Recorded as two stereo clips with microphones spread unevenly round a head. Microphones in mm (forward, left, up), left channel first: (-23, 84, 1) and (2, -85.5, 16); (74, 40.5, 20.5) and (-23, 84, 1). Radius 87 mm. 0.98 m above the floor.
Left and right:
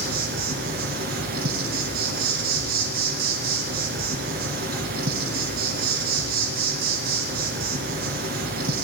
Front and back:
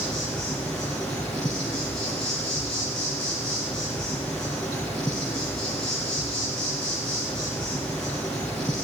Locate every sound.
0.0 s an insect: 105° right, 2.5 m